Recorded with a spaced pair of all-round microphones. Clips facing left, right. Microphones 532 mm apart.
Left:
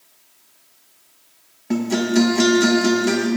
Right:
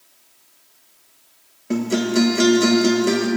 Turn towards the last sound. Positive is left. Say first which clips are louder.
# left 1 dB
turn(degrees=15)  # may be behind; listen again after turning